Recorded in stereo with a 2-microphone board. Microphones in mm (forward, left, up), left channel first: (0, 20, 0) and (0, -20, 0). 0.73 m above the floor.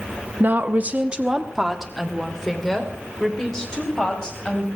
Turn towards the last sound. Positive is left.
turn(degrees=20)  # may be behind; listen again after turning